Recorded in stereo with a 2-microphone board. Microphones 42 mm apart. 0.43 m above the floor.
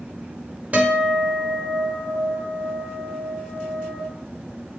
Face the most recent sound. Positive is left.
turn(degrees=-35)  # may be behind; listen again after turning